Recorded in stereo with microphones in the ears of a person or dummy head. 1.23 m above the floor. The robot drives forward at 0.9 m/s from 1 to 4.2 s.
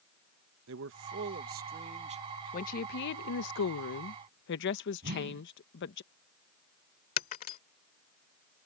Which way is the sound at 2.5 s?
45° left (ahead or behind).